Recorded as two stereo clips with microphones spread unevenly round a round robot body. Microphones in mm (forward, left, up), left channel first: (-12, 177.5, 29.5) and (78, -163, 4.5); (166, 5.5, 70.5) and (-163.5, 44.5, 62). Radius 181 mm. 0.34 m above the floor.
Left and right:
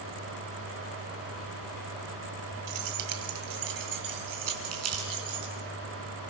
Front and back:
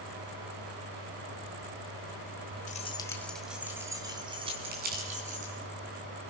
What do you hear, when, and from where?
2.7 s keys jangling: 70° right, 1.5 m; by 5.5 s 120° right, 4.5 m
4.7 s crumpling: 125° right, 5 m